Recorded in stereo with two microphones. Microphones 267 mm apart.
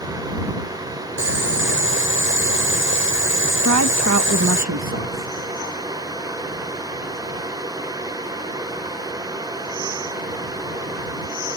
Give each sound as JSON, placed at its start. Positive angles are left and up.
{"t": 1.2, "sound": "boiling", "side_deg": -50}
{"t": 3.6, "sound": "a woman speaking", "side_deg": -90}